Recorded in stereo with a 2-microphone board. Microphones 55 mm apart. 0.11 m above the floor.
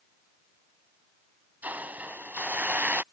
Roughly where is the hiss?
Right.